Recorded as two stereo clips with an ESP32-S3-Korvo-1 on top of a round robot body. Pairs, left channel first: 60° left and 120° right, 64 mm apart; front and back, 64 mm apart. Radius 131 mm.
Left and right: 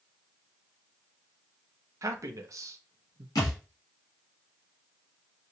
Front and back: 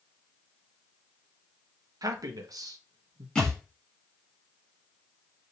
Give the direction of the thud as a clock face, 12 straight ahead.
9 o'clock.